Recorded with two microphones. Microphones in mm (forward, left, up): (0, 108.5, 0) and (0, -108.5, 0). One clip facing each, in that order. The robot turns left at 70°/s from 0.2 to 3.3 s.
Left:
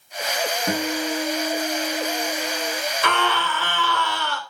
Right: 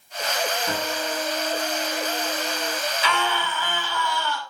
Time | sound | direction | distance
0.7 | a guitar | 55° left | 7.5 m
3.0 | a scream | 55° left (ahead or behind) | 3 m